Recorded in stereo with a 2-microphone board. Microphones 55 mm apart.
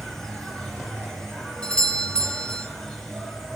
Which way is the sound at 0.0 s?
10° left (ahead or behind).